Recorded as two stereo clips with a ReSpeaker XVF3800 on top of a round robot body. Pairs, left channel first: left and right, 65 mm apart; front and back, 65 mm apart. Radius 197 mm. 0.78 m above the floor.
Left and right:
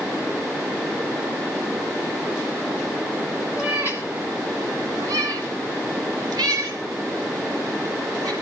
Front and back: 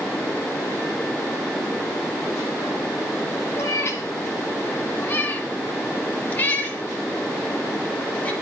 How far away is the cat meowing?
About 0.6 m.